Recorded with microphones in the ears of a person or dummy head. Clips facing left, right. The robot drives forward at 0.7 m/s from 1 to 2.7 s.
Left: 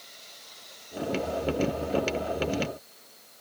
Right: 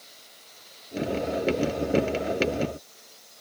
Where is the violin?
No violin in this recording.